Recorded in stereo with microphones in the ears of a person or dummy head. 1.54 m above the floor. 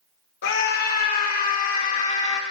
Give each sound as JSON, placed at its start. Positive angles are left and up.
{"t": 0.4, "sound": "a scream", "side_deg": 65, "distance_m": 3.5}